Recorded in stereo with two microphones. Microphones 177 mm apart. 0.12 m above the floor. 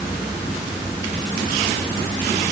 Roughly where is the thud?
I don't hear a thud.